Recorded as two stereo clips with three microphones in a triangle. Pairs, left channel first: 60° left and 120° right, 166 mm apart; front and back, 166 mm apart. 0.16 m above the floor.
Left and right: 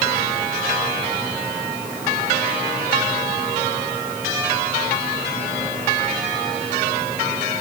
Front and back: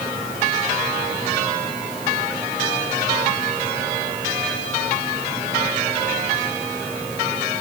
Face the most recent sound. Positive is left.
No sound to turn to.